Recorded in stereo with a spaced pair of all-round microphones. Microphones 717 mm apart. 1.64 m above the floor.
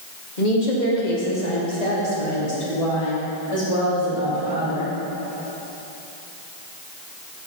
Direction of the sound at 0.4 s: 85° left.